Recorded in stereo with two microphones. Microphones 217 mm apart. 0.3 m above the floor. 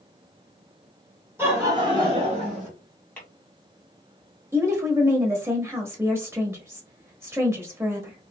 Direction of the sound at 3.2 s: 5° left (ahead or behind).